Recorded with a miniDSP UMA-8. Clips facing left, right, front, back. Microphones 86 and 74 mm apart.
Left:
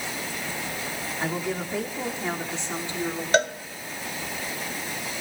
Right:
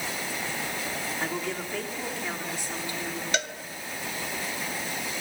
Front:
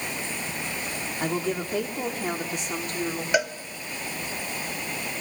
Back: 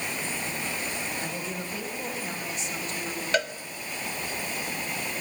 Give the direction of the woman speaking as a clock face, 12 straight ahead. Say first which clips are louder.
Left 5 dB, front 7 dB; 12 o'clock.